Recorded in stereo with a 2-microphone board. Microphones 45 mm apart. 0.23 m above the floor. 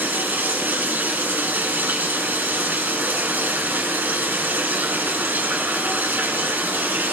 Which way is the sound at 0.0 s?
45° right (ahead or behind).